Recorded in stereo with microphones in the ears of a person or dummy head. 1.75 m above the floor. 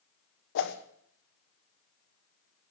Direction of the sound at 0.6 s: 70° left (ahead or behind).